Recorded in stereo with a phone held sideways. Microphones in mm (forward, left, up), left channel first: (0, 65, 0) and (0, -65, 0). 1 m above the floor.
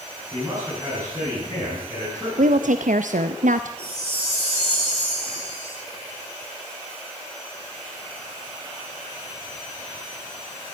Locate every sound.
0.3 s a man speaking: 25° right (ahead or behind), 7.5 m
2.4 s a woman speaking: 80° right, 0.7 m
3.8 s a chime: 45° right (ahead or behind), 7.5 m